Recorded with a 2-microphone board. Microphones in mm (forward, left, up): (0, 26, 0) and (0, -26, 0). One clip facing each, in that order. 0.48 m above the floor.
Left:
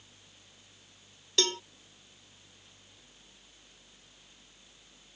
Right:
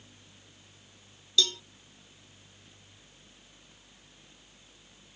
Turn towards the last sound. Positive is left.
turn(degrees=50)  # may be behind; listen again after turning